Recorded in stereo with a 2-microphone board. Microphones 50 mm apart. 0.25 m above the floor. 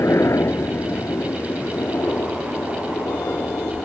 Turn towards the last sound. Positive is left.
turn(degrees=65)  # may be behind; listen again after turning